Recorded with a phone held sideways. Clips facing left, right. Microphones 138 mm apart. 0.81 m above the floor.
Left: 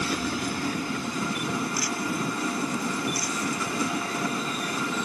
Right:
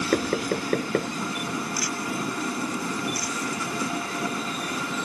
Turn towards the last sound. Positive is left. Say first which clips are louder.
# right 5 dB
turn(degrees=-65)  # may be behind; listen again after turning